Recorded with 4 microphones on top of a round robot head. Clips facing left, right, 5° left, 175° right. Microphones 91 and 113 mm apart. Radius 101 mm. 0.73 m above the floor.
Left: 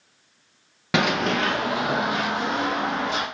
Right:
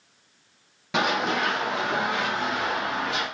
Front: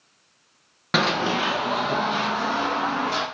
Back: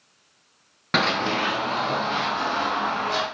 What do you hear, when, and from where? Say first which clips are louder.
0.9 s running footsteps: left 2 dB, front 1 dB; 90° left, 0.9 m; by 3.2 s 85° left, 4 m